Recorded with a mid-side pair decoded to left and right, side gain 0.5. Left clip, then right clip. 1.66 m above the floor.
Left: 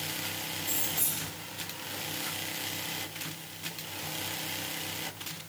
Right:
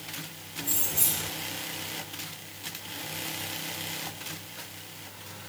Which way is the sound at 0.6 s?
40° right.